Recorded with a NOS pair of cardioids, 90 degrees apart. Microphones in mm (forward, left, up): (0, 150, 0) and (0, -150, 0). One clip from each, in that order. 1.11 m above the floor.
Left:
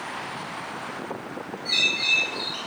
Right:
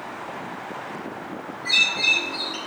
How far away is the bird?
About 4 m.